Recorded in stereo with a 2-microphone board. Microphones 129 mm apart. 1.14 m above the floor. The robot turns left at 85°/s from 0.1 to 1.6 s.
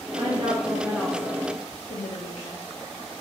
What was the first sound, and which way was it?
A woman speaking, 130° right.